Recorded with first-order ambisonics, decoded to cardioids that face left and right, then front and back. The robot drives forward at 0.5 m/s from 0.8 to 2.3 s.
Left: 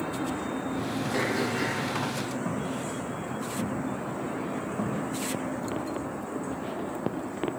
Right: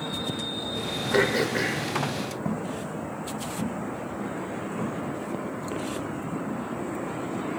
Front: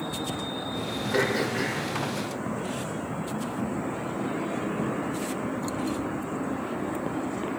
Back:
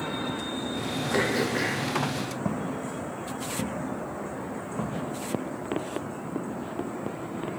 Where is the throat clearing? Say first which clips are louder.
Right 6 dB, even; 95° right, 0.8 m; by 1.9 s 130° right, 0.9 m.